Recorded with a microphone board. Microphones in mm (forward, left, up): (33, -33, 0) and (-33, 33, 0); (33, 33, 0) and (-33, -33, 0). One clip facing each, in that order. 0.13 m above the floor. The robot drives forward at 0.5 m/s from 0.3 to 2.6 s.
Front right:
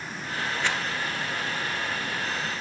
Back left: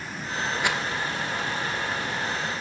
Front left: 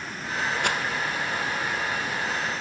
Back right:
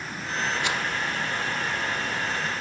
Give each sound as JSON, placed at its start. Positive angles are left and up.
{"t": 0.6, "sound": "a rattle", "azimuth_deg": 60, "distance_m": 2.5}